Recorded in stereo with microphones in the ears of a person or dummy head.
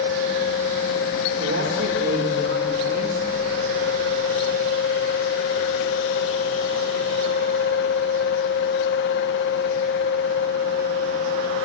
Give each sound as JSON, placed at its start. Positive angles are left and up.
{"t": 0.0, "sound": "a fan", "side_deg": 60, "distance_m": 1.0}
{"t": 1.4, "sound": "a man speaking", "side_deg": -75, "distance_m": 3.5}